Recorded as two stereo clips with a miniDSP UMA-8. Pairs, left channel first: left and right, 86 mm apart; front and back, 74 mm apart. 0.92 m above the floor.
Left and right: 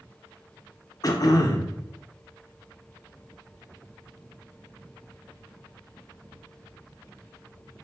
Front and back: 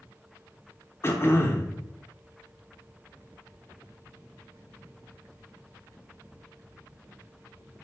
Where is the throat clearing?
55° left, 0.6 m.